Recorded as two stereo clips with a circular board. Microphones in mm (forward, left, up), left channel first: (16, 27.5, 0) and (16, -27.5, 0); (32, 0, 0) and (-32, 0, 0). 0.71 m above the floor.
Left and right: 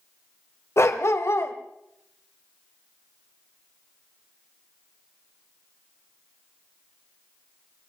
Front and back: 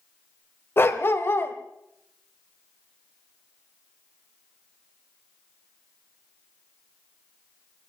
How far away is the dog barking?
About 1.4 m.